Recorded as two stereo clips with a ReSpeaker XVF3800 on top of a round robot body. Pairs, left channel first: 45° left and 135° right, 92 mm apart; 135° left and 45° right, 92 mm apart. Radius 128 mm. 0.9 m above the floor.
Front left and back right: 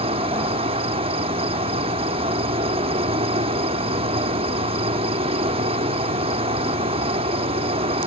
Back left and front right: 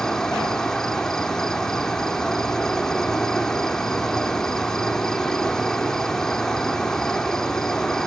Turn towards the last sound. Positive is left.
turn(degrees=-140)